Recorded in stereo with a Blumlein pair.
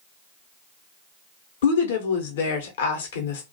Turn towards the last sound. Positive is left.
turn(degrees=60)